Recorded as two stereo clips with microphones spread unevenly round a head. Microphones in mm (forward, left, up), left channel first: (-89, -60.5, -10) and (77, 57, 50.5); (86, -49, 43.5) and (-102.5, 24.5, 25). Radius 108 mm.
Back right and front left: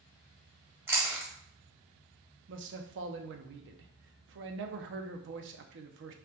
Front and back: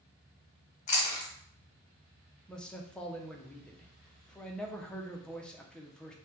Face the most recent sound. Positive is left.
turn(degrees=65)